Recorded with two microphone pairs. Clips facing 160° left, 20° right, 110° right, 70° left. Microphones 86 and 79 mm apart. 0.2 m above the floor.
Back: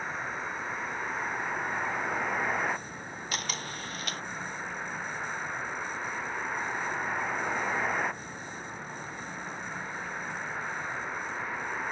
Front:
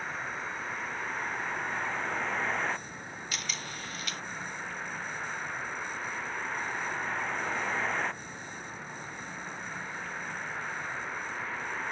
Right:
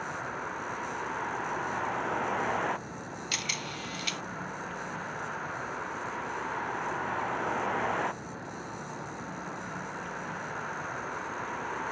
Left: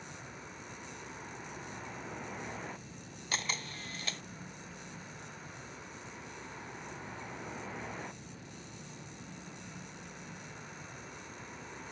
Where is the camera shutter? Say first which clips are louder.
Back 4 dB, left 1 dB; 120° left.